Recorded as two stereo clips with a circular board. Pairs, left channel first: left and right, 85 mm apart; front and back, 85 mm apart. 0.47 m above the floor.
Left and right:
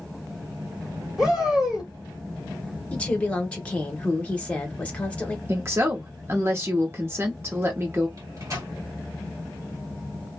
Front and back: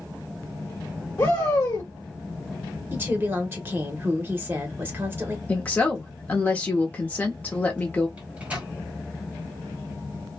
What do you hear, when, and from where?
1.2 s a shout: 15° right, 1.3 m
2.9 s a woman speaking: 150° left, 1.0 m
5.5 s a woman speaking: 60° right, 0.8 m
8.2 s a microwave: 115° right, 1.3 m